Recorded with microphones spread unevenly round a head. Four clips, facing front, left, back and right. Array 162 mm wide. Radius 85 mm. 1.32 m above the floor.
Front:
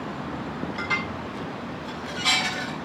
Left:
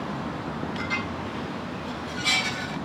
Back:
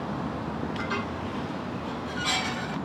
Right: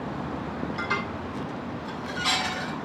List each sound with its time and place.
0.8 s dishes clattering: 35° right, 7 m